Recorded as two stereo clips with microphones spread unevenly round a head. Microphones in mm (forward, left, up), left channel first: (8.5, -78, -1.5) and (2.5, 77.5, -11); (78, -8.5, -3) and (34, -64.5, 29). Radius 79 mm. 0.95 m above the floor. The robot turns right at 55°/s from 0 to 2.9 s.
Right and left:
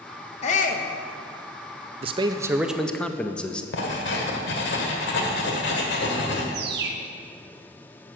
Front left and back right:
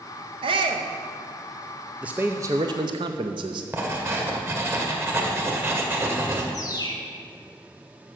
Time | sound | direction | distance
0.4 | a shout | 135° right | 0.7 m
2.0 | a man speaking | 140° left | 0.5 m
3.7 | writing | 75° right | 1.7 m
6.5 | a bird | 75° left | 1.0 m